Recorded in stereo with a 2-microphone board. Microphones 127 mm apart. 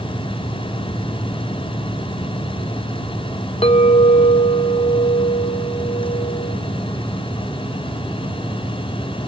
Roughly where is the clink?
Left.